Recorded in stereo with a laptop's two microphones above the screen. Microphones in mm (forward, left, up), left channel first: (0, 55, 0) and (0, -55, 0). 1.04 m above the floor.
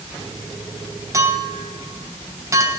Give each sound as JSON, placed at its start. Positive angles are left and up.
{"t": 1.1, "sound": "a clink", "side_deg": -30, "distance_m": 4.5}